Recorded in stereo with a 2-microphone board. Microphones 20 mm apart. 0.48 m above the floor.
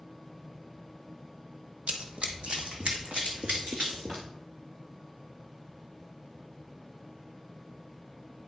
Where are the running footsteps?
65° right (ahead or behind), 1.0 m; by 4.2 s 75° right (ahead or behind), 3 m.